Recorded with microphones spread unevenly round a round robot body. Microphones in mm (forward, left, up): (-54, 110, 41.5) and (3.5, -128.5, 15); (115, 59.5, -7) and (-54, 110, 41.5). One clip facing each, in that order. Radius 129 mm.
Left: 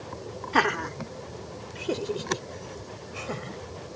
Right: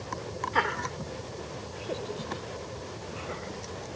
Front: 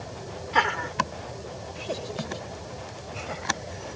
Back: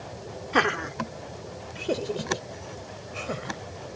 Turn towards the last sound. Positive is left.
turn(degrees=135)